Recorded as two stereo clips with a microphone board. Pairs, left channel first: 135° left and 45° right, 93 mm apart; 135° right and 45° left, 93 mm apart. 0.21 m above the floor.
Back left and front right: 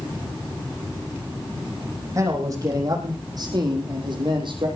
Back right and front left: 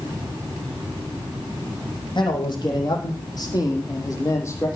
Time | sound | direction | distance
2.1 | a man speaking | 100° right | 7 m